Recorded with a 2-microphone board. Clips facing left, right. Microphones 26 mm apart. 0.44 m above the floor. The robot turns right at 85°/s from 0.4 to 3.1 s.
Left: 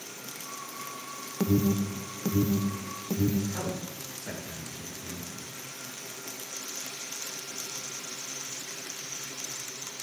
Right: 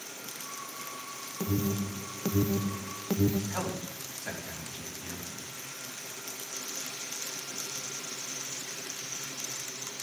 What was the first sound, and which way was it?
An alarm, 30° left (ahead or behind).